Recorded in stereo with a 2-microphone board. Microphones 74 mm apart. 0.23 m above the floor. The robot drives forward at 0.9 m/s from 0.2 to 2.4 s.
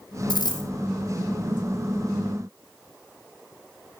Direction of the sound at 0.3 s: 75° left (ahead or behind).